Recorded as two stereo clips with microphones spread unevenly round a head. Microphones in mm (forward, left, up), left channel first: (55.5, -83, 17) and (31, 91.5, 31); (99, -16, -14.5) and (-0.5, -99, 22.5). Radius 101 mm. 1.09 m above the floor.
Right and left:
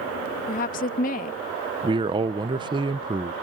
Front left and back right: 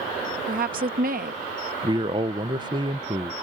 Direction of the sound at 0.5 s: 130° right.